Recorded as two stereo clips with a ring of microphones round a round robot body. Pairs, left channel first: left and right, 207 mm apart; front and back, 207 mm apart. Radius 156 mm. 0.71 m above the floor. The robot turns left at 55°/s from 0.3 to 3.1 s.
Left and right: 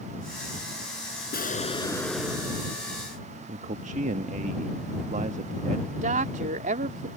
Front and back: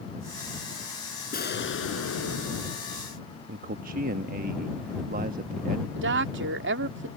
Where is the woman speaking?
150° right.